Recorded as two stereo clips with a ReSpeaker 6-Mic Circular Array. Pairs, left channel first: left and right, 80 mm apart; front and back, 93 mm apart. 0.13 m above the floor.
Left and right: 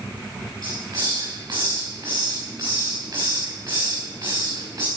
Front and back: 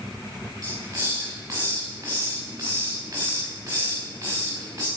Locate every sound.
0.6 s a hiss: 125° right, 4.5 m